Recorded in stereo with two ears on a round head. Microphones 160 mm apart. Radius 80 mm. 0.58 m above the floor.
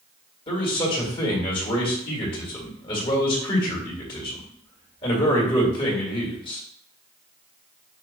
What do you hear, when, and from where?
0.5 s a man speaking: 30° left (ahead or behind), 1.9 m